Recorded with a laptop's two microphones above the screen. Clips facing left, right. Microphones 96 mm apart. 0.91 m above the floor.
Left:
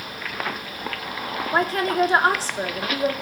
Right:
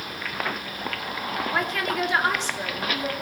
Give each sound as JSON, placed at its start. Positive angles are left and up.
{"t": 1.5, "sound": "a woman speaking", "side_deg": 35, "distance_m": 2.0}